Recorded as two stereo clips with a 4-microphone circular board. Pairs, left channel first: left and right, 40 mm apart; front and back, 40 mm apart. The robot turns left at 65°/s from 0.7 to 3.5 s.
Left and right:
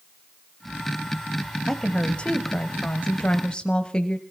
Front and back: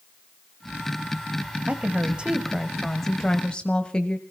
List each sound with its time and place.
1.7 s a woman speaking: 165° left, 1.4 m; by 4.2 s 45° left, 1.4 m